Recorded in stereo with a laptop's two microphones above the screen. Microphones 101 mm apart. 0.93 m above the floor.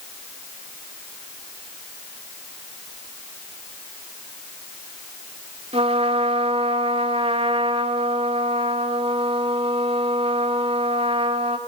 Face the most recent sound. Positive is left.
turn(degrees=-80)